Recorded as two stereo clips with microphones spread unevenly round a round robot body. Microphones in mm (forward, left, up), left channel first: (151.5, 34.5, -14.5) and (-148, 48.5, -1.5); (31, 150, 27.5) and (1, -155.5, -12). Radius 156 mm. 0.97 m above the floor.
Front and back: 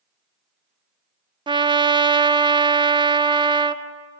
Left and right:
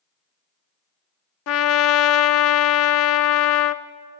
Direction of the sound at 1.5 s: 105° left.